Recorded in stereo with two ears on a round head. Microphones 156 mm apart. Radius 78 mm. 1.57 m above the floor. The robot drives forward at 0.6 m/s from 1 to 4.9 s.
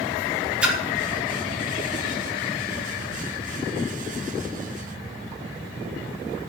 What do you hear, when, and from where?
0.6 s a splash: 5° right (ahead or behind), 2 m